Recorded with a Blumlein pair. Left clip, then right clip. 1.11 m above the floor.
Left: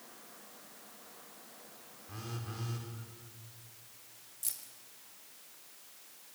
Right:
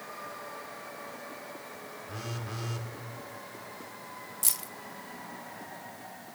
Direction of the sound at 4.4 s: 30° right.